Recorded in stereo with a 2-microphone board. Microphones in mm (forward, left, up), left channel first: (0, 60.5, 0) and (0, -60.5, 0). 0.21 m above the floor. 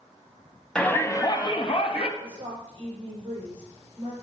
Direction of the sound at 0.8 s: 5° left (ahead or behind).